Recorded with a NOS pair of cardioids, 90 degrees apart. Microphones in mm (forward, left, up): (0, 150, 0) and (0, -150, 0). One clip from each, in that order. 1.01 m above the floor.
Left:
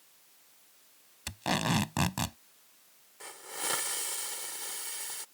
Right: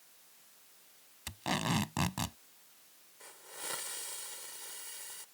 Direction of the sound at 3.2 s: 55° left.